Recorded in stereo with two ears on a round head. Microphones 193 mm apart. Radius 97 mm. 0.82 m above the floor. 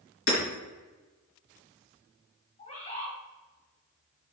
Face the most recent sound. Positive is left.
turn(degrees=30)  # may be behind; listen again after turning